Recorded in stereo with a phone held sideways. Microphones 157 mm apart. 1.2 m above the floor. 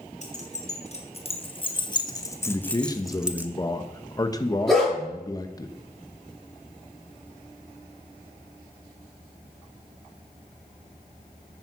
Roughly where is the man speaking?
Left.